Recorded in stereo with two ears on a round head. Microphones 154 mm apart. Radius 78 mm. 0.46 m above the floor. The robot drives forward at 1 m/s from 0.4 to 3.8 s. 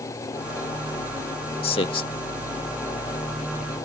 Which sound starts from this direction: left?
A man speaking, at 1.6 s.